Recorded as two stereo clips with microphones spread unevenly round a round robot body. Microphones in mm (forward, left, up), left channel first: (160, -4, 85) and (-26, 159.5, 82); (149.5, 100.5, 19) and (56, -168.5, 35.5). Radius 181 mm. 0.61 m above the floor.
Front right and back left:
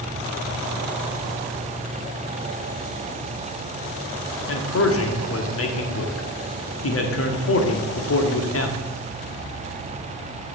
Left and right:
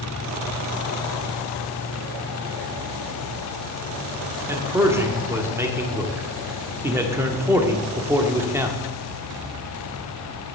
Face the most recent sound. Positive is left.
turn(degrees=-25)